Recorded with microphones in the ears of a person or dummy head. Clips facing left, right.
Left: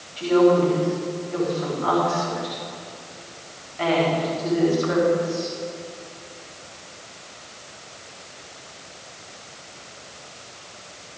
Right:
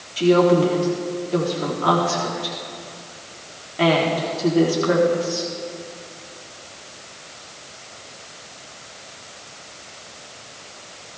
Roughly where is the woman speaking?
Right.